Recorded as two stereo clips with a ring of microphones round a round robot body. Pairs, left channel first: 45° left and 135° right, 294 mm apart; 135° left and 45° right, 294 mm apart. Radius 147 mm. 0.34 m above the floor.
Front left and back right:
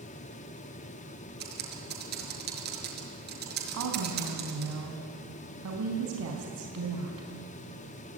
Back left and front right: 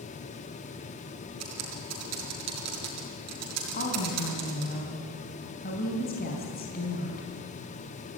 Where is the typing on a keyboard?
80° right, 5.5 m.